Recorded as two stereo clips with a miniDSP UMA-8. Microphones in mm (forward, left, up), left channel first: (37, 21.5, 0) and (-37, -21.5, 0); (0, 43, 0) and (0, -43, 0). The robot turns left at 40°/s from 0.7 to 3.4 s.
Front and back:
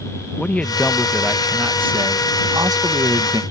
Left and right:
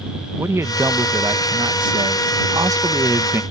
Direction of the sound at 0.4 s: 40° right.